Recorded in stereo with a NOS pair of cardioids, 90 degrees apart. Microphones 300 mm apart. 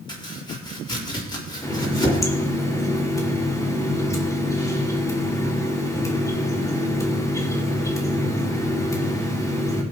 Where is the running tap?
10° left, 2.5 m.